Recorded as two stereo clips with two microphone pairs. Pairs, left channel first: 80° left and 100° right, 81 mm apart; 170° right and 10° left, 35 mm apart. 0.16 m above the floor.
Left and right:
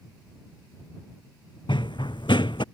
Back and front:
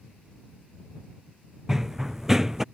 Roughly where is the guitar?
No guitar in this recording.